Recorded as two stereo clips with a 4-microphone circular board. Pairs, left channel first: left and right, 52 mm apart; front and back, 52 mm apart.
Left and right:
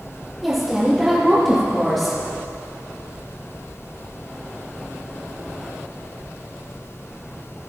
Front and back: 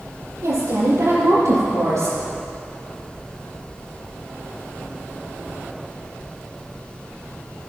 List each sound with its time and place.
0.4 s a woman speaking: 175° right, 5.5 m; by 2.2 s straight behind, 6.5 m